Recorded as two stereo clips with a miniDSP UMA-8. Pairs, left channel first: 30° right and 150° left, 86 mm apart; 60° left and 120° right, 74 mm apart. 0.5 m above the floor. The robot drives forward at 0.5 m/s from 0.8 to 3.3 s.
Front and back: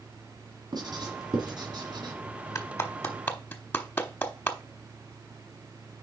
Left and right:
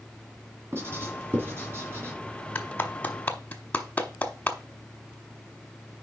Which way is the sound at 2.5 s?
5° left.